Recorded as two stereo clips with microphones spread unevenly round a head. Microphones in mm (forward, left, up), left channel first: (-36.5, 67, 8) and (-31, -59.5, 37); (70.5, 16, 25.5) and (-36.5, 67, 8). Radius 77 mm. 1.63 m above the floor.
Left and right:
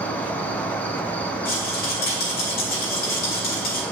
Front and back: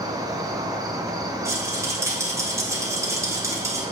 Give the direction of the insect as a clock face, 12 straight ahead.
7 o'clock.